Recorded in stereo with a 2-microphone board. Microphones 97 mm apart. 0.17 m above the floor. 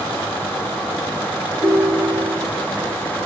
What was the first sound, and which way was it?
A ringtone, 70° right (ahead or behind).